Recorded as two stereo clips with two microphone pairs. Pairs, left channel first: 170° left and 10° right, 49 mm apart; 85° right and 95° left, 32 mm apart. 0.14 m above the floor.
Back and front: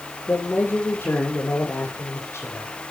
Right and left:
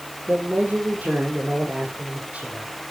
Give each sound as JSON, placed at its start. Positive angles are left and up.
{"t": 0.3, "sound": "a man speaking", "azimuth_deg": 125, "distance_m": 6.5}